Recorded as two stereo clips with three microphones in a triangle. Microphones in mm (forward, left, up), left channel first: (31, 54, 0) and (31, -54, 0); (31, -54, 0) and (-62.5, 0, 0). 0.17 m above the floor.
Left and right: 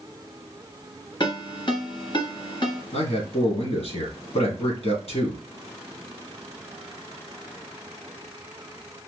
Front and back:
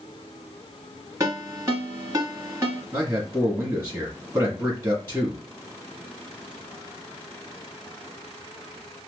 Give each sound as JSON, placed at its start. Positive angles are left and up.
{"t": 1.2, "sound": "a ringtone", "azimuth_deg": 95, "distance_m": 1.5}
{"t": 2.9, "sound": "a man speaking", "azimuth_deg": 85, "distance_m": 2.5}